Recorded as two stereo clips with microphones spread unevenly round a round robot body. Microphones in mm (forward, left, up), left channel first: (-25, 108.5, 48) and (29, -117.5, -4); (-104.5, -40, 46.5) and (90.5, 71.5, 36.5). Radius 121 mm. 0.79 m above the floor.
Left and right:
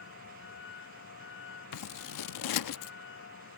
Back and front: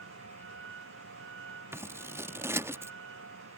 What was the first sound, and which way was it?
A vehicle, 65° left.